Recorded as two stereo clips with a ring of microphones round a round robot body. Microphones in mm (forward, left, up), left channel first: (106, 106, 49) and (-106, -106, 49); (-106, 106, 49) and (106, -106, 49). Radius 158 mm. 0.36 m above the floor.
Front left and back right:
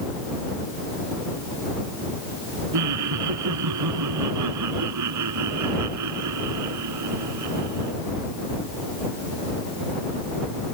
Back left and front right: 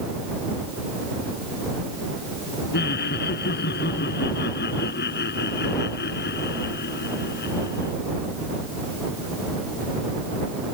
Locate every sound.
2.7 s laughter: 165° right